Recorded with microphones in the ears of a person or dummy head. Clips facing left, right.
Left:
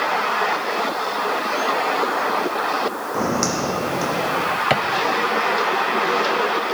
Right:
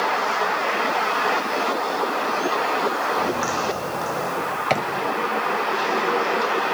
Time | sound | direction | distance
3.1 | footsteps | 60° left (ahead or behind) | 3.5 m
4.7 | a drawer | 15° left (ahead or behind) | 1.7 m